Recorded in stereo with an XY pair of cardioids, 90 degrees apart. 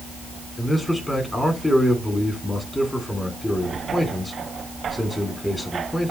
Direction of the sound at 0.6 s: 15° left.